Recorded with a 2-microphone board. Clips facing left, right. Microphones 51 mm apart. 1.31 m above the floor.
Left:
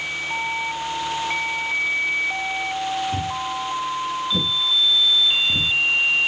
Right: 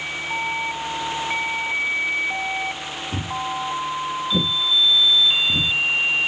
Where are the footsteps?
30° right (ahead or behind), 3.5 m; by 5.7 s centre (ahead or behind), 2 m.